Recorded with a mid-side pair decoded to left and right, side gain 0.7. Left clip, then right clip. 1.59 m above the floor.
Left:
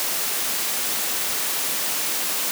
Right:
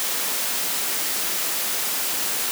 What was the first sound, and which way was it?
Only background noise.